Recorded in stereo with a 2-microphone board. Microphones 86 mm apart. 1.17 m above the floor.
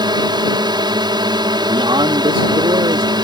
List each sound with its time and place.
0.0 s a drone: 60° right (ahead or behind)
1.7 s a man speaking: 75° right (ahead or behind)